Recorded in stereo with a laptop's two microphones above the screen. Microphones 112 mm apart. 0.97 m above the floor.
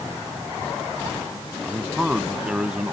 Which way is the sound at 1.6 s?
10° right (ahead or behind).